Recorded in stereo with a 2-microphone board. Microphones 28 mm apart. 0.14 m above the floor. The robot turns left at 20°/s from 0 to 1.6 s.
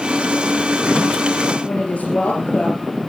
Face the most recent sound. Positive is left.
turn(degrees=60)  # may be behind; listen again after turning